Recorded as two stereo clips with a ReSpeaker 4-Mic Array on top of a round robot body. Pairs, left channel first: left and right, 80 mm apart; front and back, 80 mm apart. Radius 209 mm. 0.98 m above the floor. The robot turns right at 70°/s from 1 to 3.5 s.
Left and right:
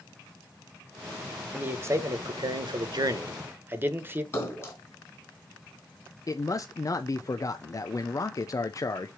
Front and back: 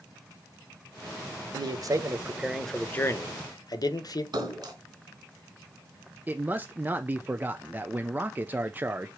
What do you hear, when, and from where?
1.5 s a man speaking: 165° right, 1.4 m; by 4.2 s 30° right, 1.4 m
4.3 s a splash: 145° left, 3 m
6.3 s a man speaking: 120° left, 0.8 m